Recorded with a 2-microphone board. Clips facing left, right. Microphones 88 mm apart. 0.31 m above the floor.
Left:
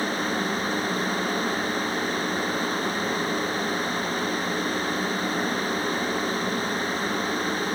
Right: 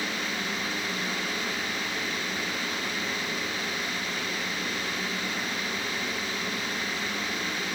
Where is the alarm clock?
I don't hear an alarm clock.